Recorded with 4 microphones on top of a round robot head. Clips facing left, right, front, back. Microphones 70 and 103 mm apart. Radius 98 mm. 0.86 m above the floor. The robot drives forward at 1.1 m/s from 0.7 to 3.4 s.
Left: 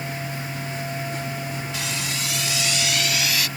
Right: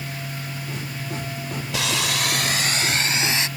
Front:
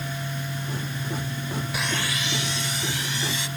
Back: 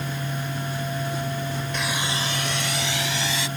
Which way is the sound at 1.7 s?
85° right.